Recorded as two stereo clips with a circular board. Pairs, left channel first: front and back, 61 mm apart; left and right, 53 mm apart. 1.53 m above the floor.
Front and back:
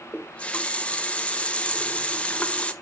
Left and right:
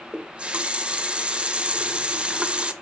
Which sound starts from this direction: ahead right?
A running tap, at 0.1 s.